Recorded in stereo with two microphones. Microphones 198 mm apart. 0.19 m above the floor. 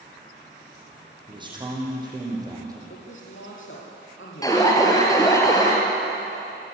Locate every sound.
1.3 s a man speaking: 25° right (ahead or behind), 7.5 m; by 2.8 s 20° right (ahead or behind), 7 m
2.9 s a man speaking: 80° left, 7 m
4.4 s an alarm: 15° left (ahead or behind), 4.5 m